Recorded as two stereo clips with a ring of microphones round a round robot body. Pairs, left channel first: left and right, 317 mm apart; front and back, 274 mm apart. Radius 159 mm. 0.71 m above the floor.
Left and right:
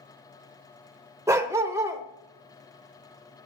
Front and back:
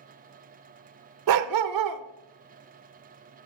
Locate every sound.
1.3 s a dog barking: 170° right, 0.7 m